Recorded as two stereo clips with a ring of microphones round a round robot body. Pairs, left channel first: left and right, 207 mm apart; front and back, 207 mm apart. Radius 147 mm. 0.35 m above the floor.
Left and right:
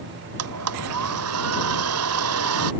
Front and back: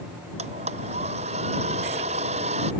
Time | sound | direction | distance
0.4 | a blender | 110° right | ?